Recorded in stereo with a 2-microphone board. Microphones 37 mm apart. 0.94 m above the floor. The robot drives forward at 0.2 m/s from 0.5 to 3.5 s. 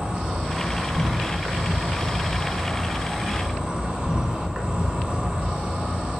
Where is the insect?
30° right (ahead or behind), 0.7 m; by 6.2 s 25° right (ahead or behind), 0.8 m.